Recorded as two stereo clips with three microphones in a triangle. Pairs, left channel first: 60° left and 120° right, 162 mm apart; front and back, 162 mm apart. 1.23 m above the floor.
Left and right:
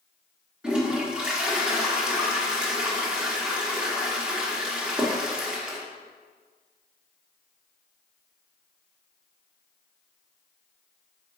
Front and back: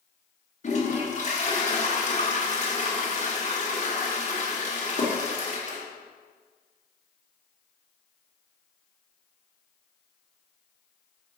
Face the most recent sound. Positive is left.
turn(degrees=-35)